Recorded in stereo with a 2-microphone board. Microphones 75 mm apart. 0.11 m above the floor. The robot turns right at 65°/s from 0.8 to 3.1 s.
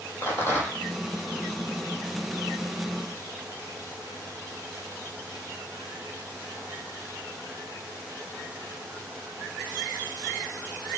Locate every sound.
0.2 s a rattle: 30° left (ahead or behind), 5 m